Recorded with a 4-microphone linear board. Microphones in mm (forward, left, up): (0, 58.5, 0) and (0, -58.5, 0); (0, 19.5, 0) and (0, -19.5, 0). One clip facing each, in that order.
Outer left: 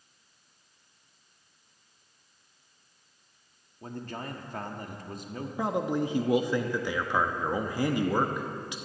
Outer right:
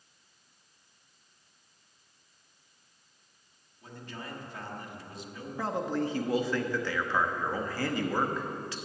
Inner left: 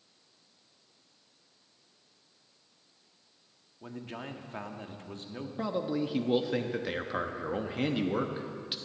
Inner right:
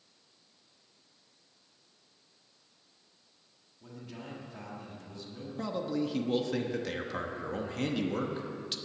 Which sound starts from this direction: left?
A man speaking, at 3.8 s.